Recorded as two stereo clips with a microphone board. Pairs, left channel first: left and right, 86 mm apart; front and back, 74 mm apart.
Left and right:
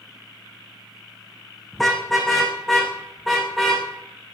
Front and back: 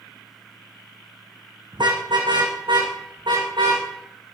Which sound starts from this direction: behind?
A car horn, at 1.7 s.